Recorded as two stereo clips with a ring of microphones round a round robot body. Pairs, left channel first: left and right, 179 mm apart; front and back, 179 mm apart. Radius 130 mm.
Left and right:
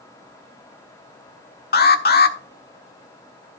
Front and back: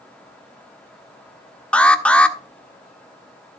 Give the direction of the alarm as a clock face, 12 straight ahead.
9 o'clock.